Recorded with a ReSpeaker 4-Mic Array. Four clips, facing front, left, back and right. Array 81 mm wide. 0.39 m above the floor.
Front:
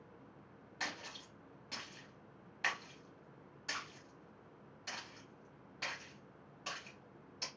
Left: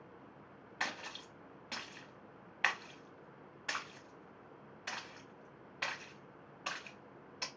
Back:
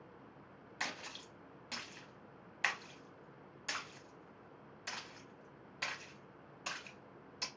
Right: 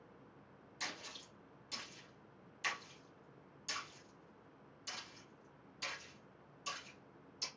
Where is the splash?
100° left, 0.6 m.